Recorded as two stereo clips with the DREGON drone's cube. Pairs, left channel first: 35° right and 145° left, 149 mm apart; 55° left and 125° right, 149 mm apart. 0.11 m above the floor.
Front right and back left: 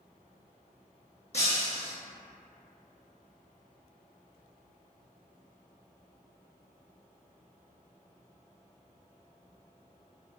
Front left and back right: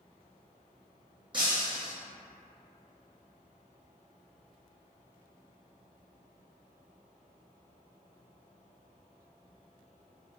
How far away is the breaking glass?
About 0.9 m.